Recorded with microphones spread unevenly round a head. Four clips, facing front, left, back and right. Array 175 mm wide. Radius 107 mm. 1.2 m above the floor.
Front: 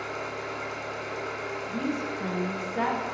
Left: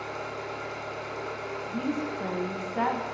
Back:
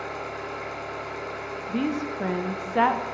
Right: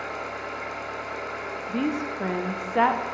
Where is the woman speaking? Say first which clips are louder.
Right 4 dB, back 5 dB; 110° right, 0.7 m.